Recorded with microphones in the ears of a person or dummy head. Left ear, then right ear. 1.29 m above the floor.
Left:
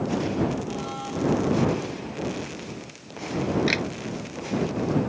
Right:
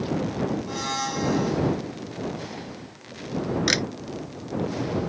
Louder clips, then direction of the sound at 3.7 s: Right 4 dB; 45° right (ahead or behind).